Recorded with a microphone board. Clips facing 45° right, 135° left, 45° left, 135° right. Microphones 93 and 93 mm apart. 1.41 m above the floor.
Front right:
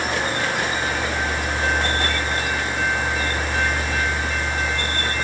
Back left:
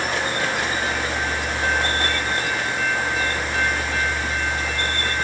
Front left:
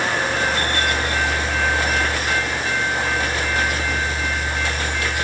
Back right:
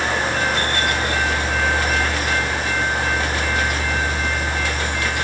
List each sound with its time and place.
Only background noise.